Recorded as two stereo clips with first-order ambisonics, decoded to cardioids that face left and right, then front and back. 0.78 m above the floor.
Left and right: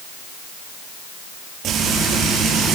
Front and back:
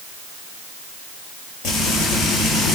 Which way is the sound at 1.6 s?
35° right.